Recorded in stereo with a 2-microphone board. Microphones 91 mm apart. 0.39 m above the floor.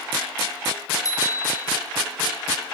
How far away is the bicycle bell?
About 6.5 m.